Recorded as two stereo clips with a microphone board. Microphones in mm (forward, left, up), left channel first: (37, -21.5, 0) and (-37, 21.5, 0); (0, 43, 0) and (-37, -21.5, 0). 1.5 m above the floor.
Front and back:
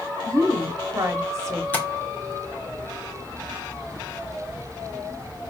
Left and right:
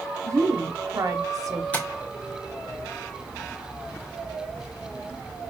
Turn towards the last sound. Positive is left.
turn(degrees=15)